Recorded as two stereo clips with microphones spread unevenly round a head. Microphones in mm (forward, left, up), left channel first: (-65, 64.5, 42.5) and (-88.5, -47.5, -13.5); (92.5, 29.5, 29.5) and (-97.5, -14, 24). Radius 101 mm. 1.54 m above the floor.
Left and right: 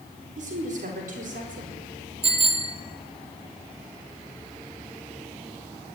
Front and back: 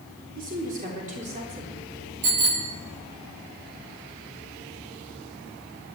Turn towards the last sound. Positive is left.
turn(degrees=-145)